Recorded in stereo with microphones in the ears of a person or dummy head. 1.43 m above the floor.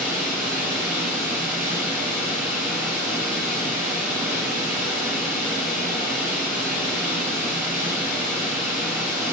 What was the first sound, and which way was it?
Running water, 15° right (ahead or behind).